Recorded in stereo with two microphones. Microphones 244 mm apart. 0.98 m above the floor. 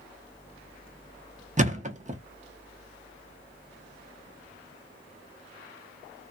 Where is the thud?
30° right (ahead or behind), 0.6 m.